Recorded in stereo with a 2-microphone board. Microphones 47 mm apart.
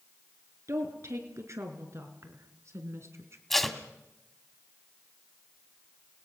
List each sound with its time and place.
0.7 s a woman speaking: 80° right, 4.5 m; by 3.4 s 60° right (ahead or behind), 3 m
3.5 s tape being pulled: 5° left (ahead or behind), 1.9 m